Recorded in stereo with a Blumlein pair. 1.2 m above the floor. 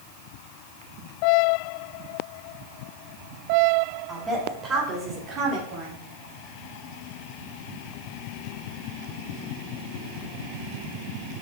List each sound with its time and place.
4.1 s a woman speaking: 15° right, 2.5 m; by 6.0 s 40° right, 3.5 m